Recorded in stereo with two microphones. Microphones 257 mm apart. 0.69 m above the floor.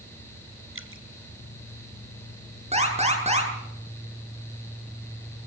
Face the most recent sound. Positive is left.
turn(degrees=-25)  # may be behind; listen again after turning